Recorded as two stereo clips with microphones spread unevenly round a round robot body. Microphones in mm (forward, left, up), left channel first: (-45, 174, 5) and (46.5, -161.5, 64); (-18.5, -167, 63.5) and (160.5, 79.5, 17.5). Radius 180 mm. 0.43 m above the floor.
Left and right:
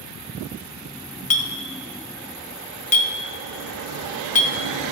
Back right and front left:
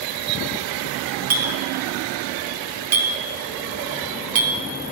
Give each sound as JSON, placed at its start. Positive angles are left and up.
{"t": 1.3, "sound": "a clink", "azimuth_deg": 70, "distance_m": 0.6}